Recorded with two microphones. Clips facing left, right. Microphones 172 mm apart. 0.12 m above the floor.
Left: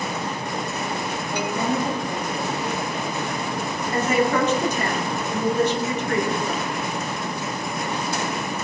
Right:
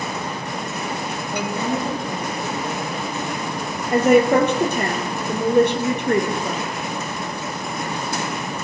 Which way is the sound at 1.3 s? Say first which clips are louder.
Even; 10° right (ahead or behind).